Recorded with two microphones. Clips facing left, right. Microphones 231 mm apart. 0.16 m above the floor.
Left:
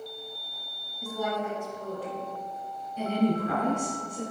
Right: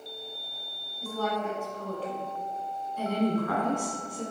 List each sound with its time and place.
1.0 s a woman speaking: 15° left (ahead or behind), 1.0 m
3.0 s a woman speaking: 25° left (ahead or behind), 1.4 m